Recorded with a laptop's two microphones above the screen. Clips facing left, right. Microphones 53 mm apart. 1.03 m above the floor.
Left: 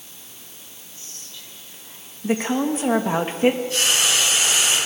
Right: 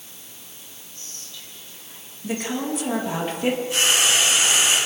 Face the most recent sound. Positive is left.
turn(degrees=-15)  # may be behind; listen again after turning